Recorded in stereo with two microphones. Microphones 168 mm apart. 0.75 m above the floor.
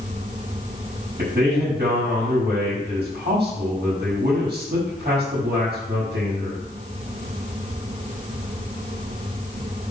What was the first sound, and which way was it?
A man speaking, 75° right (ahead or behind).